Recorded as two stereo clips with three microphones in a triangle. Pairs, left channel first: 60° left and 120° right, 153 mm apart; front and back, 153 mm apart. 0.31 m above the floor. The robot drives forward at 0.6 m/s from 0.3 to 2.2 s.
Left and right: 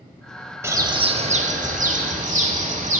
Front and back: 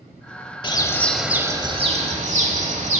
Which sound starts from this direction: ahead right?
A bird, at 0.6 s.